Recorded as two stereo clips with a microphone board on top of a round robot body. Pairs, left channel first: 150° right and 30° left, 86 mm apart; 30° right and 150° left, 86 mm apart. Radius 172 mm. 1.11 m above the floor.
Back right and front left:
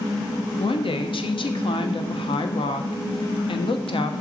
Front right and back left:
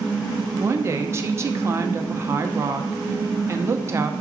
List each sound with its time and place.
0.6 s a woman speaking: 155° right, 1.1 m